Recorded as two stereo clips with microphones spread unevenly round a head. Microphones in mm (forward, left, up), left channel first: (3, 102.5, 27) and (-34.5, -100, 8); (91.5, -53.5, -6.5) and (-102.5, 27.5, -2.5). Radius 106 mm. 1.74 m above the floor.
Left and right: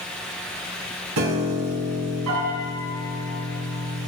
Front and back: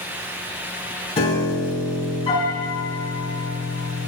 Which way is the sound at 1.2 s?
85° right.